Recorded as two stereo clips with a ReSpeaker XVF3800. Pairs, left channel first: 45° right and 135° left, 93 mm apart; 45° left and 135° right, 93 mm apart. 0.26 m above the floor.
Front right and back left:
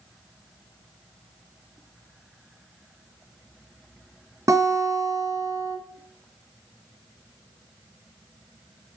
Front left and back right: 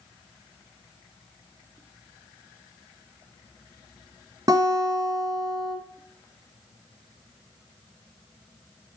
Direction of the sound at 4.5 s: 175° right.